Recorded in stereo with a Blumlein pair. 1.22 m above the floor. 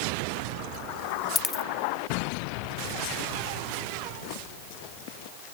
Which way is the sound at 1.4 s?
15° left.